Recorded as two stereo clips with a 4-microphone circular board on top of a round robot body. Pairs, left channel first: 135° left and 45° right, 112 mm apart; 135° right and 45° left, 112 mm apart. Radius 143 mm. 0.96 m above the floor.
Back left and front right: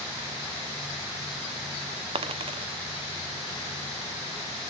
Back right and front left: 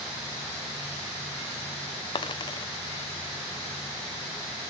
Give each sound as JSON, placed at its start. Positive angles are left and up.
{"t": 2.1, "sound": "a dropped coin", "azimuth_deg": -85, "distance_m": 0.9}